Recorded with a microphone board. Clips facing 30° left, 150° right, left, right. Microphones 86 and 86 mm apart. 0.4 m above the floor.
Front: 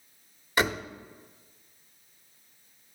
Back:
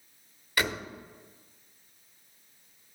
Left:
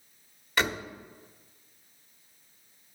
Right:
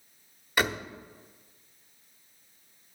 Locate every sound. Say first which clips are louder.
0.6 s a door slam: front 4 dB, right 1 dB; 15° right, 1.1 m